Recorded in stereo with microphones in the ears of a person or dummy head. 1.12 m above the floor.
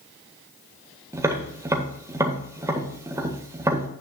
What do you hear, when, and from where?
1.1 s tapping: 20° right (ahead or behind), 1.7 m